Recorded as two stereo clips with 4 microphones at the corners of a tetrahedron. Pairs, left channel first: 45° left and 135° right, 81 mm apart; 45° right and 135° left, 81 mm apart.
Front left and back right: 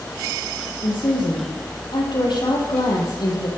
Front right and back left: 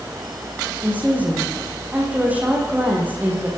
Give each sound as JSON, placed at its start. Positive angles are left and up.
{"t": 0.8, "sound": "a woman speaking", "azimuth_deg": 65, "distance_m": 8.0}